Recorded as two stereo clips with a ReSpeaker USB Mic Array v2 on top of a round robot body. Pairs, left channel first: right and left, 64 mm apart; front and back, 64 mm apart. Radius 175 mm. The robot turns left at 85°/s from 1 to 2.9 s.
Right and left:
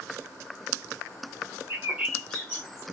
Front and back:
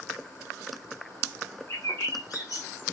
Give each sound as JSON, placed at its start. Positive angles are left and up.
{"t": 1.7, "sound": "a bird", "azimuth_deg": 45, "distance_m": 1.4}